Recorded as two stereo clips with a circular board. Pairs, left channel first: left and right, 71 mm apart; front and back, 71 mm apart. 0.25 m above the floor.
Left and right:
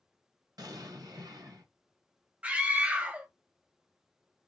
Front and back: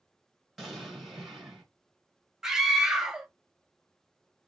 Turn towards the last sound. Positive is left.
turn(degrees=-115)